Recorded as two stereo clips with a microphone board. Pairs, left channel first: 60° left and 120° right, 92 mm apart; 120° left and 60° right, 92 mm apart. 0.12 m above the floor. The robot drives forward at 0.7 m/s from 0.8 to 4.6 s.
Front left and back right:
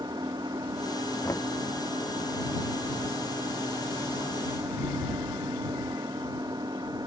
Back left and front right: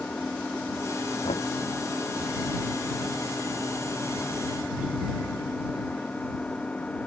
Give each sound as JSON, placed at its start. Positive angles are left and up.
{"t": 0.0, "sound": "an engine running", "azimuth_deg": -160}
{"t": 1.2, "sound": "knocking", "azimuth_deg": 120}